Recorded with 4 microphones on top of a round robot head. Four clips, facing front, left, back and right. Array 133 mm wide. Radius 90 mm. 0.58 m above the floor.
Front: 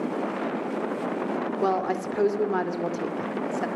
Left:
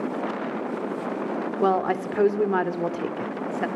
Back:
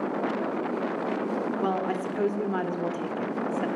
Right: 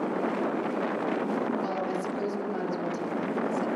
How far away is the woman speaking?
About 2 m.